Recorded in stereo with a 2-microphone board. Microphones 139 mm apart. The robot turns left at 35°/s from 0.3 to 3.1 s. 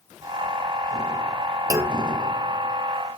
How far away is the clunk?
About 0.7 m.